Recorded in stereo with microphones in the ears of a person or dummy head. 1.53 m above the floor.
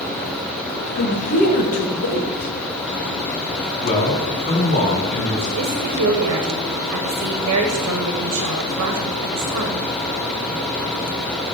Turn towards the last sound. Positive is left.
turn(degrees=-75)  # may be behind; listen again after turning